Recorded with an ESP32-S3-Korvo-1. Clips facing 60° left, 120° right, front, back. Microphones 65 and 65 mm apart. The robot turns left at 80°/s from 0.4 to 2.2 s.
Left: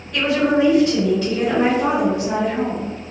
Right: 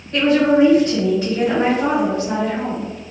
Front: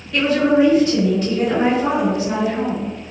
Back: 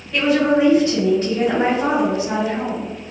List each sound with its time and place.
0.1 s a woman speaking: 100° right, 1.8 m; by 2.9 s 115° left, 1.8 m